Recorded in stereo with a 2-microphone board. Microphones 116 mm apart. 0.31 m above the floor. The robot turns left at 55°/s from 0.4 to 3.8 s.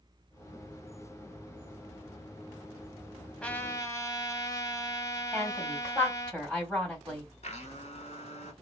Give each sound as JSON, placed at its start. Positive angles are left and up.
{"t": 3.4, "sound": "a trumpet", "side_deg": 10, "distance_m": 0.8}
{"t": 5.3, "sound": "a woman speaking", "side_deg": 10, "distance_m": 2.0}
{"t": 7.4, "sound": "a blender", "side_deg": 75, "distance_m": 1.0}